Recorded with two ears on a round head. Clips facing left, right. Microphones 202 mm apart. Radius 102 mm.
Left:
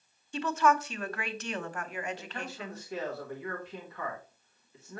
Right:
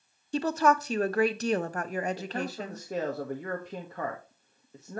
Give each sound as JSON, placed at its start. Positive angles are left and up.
{"t": 0.3, "sound": "a woman speaking", "side_deg": -30, "distance_m": 0.6}
{"t": 2.2, "sound": "a man speaking", "side_deg": -35, "distance_m": 1.1}